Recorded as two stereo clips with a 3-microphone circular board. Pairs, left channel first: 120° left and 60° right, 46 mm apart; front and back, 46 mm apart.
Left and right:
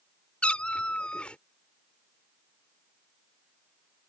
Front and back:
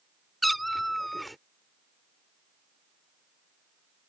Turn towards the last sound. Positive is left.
turn(degrees=85)